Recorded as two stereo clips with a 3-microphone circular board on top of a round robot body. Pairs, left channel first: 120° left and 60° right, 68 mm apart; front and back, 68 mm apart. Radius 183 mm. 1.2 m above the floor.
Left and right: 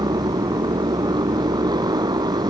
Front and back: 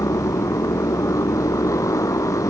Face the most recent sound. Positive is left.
turn(degrees=-40)